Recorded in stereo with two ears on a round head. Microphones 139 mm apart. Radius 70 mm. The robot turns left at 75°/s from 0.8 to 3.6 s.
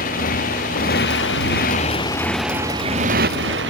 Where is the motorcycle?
120° left; by 3.7 s 90° right.